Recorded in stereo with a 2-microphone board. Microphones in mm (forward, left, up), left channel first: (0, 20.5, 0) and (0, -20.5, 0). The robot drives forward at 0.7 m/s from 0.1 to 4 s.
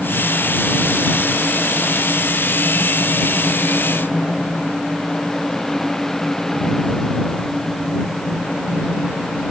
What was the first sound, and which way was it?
Only background noise.